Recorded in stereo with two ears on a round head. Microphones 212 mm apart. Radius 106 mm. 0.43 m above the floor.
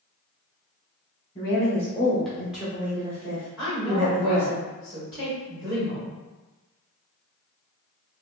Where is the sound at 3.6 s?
5° right (ahead or behind), 1.7 m.